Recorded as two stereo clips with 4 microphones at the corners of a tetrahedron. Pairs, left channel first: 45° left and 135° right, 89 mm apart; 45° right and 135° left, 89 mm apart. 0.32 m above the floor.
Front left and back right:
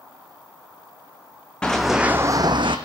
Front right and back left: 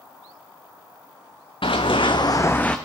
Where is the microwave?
No microwave in this recording.